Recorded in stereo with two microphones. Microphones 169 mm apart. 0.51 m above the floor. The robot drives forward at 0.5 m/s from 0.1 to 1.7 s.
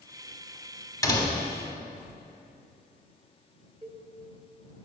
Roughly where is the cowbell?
Right.